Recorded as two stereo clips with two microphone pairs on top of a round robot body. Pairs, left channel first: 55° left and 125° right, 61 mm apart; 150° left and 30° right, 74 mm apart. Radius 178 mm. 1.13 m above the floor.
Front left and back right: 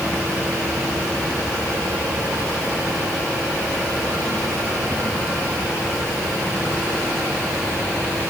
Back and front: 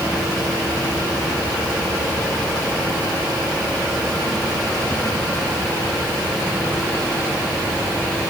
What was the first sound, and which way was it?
Only background noise.